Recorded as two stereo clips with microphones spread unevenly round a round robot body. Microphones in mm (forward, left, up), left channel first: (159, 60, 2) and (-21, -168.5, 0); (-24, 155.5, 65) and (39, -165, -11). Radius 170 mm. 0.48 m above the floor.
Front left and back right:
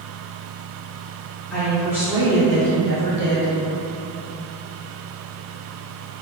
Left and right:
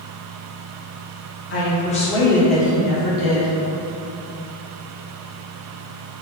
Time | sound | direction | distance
1.5 | a woman speaking | 125° left | 1.2 m